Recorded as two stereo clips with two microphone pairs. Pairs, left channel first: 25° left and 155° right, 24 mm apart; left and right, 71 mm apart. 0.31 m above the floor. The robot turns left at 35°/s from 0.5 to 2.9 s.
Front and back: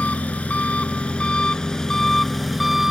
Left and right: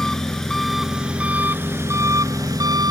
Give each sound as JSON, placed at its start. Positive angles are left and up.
{"t": 0.0, "sound": "an engine running", "azimuth_deg": 10}